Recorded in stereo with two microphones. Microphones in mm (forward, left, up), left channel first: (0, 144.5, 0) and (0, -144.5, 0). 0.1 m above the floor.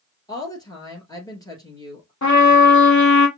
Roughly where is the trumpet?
Left.